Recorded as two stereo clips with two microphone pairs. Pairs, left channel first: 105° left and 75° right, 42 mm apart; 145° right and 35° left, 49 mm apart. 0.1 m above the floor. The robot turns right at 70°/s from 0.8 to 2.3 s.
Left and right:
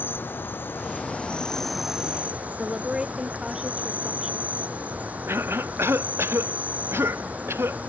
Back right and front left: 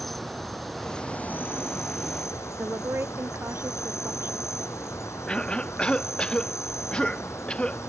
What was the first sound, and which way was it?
An insect, 130° left.